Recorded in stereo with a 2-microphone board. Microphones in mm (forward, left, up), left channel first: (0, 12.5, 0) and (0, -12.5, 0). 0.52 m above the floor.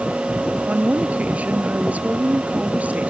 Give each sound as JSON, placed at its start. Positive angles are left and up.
{"t": 0.7, "sound": "a woman speaking", "side_deg": -85}